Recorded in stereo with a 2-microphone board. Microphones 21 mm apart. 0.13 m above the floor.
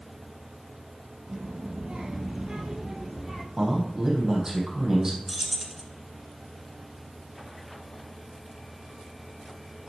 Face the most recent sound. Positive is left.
turn(degrees=-5)  # may be behind; listen again after turning